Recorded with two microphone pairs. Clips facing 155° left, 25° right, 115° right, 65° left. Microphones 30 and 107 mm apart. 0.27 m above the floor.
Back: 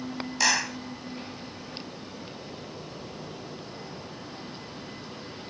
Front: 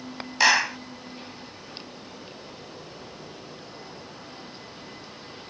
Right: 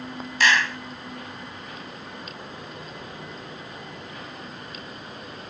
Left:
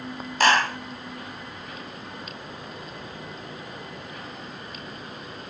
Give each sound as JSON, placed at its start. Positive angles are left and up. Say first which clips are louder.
{"t": 0.4, "sound": "a clap", "louder": "front 6 dB, left 2 dB", "azimuth_deg": 35}